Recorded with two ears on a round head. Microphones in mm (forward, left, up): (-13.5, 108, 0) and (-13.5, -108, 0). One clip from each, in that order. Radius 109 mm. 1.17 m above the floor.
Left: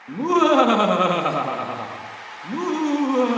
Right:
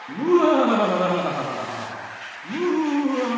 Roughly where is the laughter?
Left.